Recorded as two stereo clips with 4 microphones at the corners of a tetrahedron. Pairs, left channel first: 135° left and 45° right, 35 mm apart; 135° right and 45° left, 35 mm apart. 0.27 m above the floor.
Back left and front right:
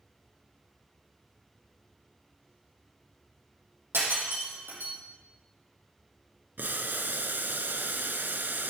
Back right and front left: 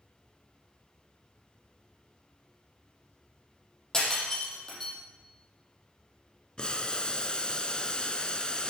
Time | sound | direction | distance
3.9 | breaking glass | 60° right | 6 m
6.6 | boiling | 70° right | 1.0 m